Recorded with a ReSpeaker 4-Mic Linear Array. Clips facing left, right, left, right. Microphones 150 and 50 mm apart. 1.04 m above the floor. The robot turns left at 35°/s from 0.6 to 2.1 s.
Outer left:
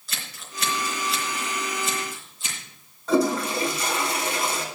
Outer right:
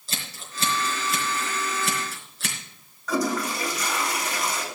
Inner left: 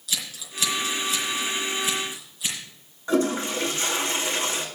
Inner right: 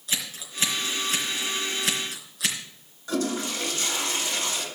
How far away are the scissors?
About 4 m.